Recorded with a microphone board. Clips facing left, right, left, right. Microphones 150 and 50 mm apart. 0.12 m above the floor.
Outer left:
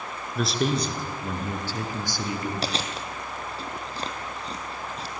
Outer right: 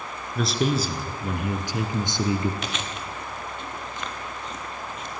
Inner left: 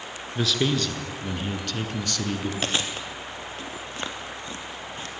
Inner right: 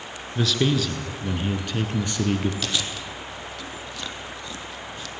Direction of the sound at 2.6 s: 30° left (ahead or behind).